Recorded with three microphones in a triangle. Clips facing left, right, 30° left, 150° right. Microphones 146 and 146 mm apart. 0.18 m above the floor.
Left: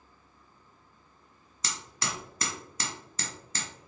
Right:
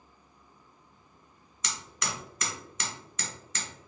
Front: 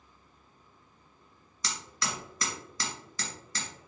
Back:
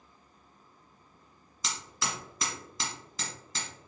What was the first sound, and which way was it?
Hammering, 145° left.